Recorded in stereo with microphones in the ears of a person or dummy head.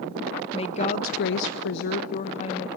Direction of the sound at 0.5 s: 25° left (ahead or behind).